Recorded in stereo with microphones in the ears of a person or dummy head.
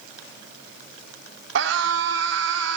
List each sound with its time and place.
1.6 s a scream: 75° right (ahead or behind), 3 m